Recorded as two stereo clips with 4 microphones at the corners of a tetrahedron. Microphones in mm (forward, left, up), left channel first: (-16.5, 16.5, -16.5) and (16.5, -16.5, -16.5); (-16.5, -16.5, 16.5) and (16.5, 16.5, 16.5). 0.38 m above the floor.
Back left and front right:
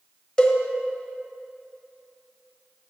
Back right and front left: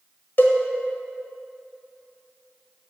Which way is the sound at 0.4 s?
160° right.